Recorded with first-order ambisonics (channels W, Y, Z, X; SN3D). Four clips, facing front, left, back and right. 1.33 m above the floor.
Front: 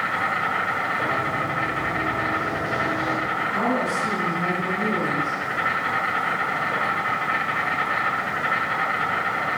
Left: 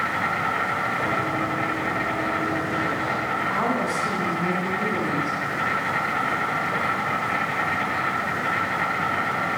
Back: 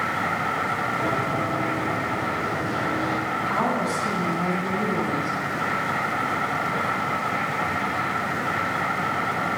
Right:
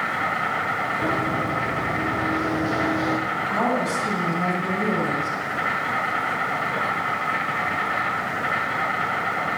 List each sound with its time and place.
0.0 s an insect: 35° right, 7 m
1.0 s running footsteps: 110° right, 3 m; by 3.2 s 80° right, 3.5 m
3.3 s a woman speaking: 100° right, 7 m